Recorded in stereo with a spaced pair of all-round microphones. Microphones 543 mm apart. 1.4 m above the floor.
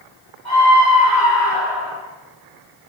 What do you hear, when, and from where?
0.5 s a scream: 10° left (ahead or behind), 4 m; by 2.0 s 5° right (ahead or behind), 4 m